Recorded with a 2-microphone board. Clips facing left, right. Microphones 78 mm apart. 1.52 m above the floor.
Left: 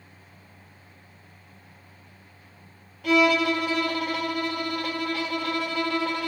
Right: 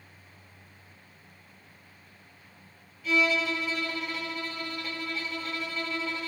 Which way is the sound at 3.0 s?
70° left (ahead or behind).